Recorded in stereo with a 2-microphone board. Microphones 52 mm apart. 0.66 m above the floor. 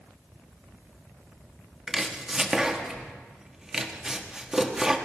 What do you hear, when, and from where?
1.9 s chopping: 10° right (ahead or behind), 1.1 m